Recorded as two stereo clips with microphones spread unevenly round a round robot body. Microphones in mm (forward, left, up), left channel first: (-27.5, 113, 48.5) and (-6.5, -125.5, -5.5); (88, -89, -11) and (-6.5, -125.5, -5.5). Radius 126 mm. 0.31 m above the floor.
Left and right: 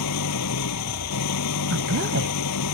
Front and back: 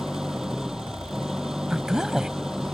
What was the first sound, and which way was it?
An engine running, 115° left.